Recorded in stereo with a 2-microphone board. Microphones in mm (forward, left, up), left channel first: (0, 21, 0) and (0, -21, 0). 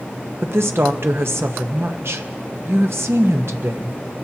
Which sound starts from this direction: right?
A woman speaking, at 0.4 s.